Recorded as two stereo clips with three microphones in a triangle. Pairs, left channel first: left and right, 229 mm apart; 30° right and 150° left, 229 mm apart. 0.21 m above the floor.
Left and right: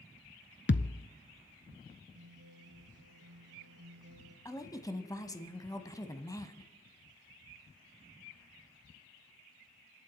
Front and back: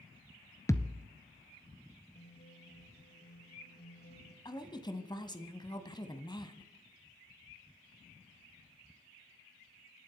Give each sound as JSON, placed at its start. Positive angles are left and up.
{"t": 0.7, "sound": "a thud", "azimuth_deg": 45, "distance_m": 0.7}
{"t": 2.1, "sound": "a guitar", "azimuth_deg": -80, "distance_m": 4.0}
{"t": 4.5, "sound": "a woman speaking", "azimuth_deg": 25, "distance_m": 1.2}